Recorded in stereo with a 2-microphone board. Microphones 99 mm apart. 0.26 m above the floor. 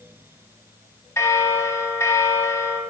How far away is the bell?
About 0.8 m.